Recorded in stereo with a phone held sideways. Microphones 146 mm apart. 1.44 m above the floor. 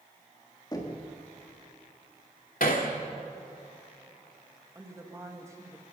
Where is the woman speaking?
20° right (ahead or behind), 2.5 m.